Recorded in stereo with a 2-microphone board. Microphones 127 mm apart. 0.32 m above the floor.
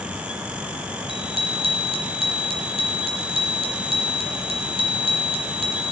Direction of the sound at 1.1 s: 45° right (ahead or behind).